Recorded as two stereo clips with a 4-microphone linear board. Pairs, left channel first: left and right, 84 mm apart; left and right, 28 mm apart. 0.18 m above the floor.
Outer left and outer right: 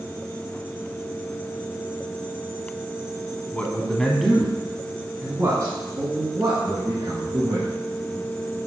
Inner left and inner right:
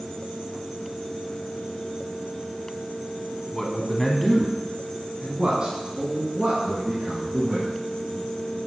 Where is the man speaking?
20° left (ahead or behind), 1.5 m; by 7.7 s 60° right (ahead or behind), 3 m.